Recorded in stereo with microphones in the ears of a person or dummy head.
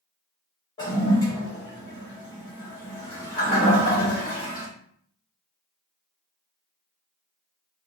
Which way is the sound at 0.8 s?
15° left (ahead or behind).